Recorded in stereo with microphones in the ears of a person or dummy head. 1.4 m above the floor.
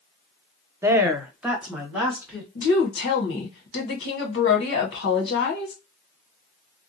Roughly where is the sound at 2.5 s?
Left.